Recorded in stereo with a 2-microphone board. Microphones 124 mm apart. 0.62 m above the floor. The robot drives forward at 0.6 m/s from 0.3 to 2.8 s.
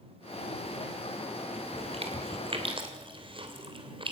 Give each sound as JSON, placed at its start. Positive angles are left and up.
{"t": 1.7, "sound": "chewing", "side_deg": -50, "distance_m": 2.5}